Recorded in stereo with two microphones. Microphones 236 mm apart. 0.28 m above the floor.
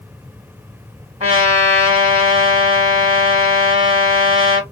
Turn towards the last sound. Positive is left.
turn(degrees=-25)  # may be behind; listen again after turning